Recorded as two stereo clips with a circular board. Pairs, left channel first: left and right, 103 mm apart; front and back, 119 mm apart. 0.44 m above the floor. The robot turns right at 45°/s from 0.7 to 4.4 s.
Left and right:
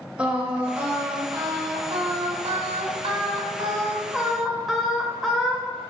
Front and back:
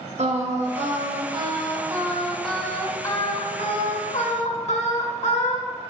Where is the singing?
165° right, 0.5 m; by 5.8 s straight ahead, 0.5 m.